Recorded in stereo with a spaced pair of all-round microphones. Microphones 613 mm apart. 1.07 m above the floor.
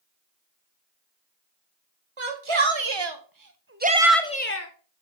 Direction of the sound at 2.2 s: 60° right (ahead or behind).